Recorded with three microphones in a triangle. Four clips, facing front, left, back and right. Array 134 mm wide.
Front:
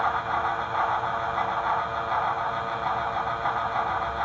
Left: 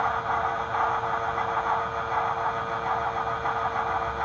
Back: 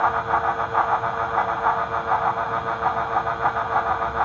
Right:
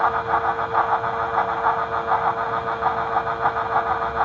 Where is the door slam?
I don't hear a door slam.